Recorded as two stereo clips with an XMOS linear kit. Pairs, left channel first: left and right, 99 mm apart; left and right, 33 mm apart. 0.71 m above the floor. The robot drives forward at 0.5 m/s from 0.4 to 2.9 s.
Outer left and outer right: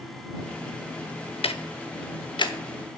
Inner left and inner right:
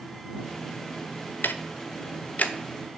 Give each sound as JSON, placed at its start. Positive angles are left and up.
{"t": 1.4, "sound": "ticking", "side_deg": 75, "distance_m": 0.6}